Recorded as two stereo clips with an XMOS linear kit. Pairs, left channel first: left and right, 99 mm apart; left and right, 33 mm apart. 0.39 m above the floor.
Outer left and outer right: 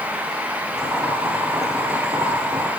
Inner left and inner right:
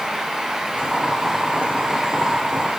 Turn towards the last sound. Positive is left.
turn(degrees=-40)  # may be behind; listen again after turning